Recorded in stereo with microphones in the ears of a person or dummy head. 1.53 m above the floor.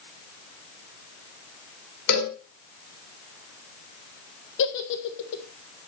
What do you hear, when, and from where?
2.1 s a cowbell: 55° left (ahead or behind), 4.5 m
4.6 s a giggle: 60° left (ahead or behind), 1.4 m